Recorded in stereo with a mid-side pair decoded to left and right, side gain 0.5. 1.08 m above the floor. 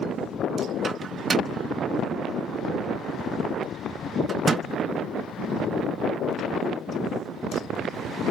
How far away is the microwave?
About 0.9 m.